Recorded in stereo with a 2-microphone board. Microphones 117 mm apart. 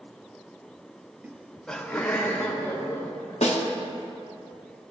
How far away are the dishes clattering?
I don't hear dishes clattering.